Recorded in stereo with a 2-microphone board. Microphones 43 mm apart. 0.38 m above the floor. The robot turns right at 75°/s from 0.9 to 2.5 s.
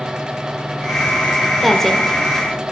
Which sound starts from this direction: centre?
A woman speaking, at 1.6 s.